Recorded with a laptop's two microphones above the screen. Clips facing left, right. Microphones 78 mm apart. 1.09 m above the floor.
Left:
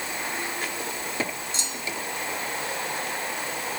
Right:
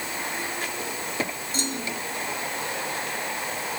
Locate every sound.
1.5 s a clunk: 50° right (ahead or behind)